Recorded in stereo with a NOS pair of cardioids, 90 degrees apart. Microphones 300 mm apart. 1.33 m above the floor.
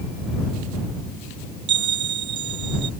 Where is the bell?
70° right.